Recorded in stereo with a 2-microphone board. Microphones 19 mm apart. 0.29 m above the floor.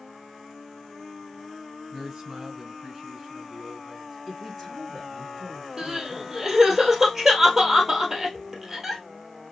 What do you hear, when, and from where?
1.9 s a man speaking: 40° right (ahead or behind), 2 m; by 4.2 s 15° right (ahead or behind), 3.5 m
4.3 s a man speaking: 5° left (ahead or behind), 2.5 m
5.8 s crying: 20° right (ahead or behind), 1.8 m